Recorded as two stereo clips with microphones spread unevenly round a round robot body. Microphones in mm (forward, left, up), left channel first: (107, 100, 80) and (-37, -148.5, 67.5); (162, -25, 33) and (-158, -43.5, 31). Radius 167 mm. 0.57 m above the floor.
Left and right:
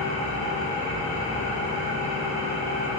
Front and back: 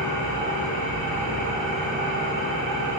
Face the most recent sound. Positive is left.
turn(degrees=-155)